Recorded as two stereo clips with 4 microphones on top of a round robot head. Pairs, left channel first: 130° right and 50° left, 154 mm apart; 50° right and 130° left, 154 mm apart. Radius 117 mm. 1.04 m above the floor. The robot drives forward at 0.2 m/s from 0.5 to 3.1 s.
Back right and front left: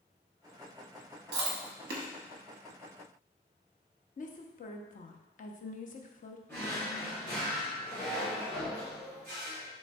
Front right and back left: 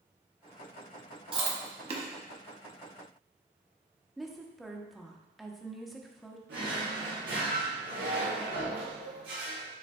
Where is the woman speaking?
140° right, 0.7 m.